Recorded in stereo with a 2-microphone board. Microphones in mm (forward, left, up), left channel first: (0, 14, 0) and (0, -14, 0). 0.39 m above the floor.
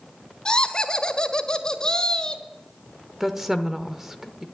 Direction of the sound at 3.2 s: 10° right (ahead or behind).